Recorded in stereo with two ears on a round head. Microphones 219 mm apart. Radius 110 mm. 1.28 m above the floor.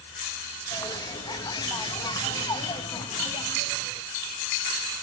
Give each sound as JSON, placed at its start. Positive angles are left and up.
{"t": 0.7, "sound": "a bird", "side_deg": 15, "distance_m": 0.6}